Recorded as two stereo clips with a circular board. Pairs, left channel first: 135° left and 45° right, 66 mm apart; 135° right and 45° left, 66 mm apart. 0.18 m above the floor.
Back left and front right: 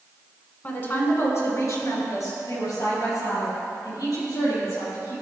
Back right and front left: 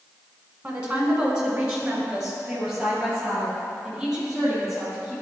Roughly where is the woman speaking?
Left.